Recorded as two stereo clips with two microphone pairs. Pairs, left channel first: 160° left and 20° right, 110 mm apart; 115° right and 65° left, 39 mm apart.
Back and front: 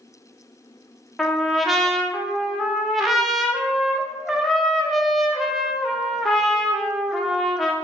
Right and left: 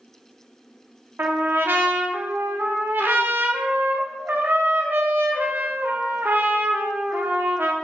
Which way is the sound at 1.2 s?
65° left.